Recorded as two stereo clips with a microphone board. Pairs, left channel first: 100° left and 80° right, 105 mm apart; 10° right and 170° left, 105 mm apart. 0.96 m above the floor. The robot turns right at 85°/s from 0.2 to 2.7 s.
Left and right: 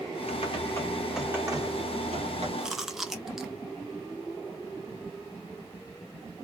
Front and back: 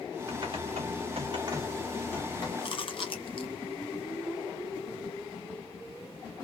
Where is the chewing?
Straight ahead, 0.6 m; by 3.5 s 5° left, 0.6 m.